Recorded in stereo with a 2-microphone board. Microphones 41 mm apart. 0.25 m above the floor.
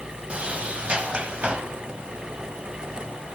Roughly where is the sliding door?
Right.